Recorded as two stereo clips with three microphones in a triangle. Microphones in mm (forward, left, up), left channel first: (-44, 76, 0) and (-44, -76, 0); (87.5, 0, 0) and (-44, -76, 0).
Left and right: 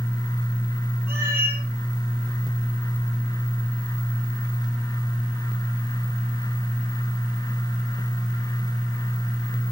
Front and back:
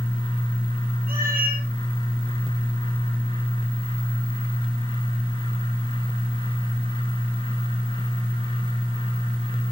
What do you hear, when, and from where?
1.1 s a cat meowing: 165° right, 4.5 m